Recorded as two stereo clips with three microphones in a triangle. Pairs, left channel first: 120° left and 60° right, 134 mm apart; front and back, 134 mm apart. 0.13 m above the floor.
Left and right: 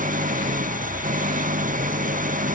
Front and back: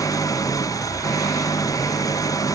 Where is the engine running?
65° right.